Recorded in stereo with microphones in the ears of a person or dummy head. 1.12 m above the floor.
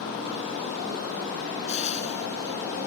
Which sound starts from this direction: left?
Frying, at 1.7 s.